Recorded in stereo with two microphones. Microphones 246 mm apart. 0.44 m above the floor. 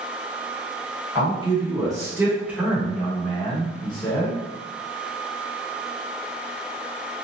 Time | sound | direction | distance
1.1 | a man speaking | 20° right (ahead or behind) | 1.6 m